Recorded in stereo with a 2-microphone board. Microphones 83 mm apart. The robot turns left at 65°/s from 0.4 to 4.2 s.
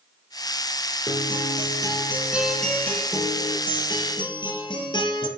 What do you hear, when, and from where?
1.1 s a guitar: 85° right, 4.5 m; by 5.3 s 70° left, 4.5 m